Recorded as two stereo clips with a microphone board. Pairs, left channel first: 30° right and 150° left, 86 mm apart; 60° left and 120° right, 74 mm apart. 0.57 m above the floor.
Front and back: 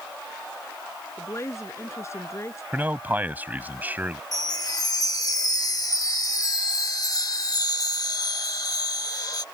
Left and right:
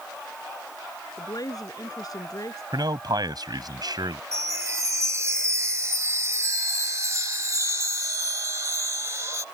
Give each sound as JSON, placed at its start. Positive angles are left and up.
{"t": 1.2, "sound": "a woman speaking", "azimuth_deg": 25}
{"t": 2.7, "sound": "a man speaking", "azimuth_deg": -140}
{"t": 4.3, "sound": "a chime", "azimuth_deg": -75}